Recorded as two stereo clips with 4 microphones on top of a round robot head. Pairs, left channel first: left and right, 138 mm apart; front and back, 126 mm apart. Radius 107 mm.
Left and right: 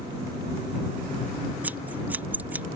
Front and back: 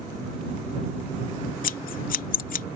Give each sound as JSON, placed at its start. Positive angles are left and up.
{"t": 1.6, "sound": "scissors", "azimuth_deg": -10}